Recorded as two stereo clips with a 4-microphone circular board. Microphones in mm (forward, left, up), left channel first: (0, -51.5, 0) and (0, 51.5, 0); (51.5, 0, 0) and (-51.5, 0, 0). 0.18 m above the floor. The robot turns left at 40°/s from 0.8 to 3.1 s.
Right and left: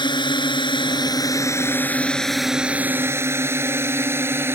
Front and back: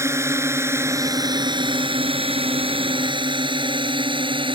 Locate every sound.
0.0 s a drone: 120° right; by 4.6 s 155° left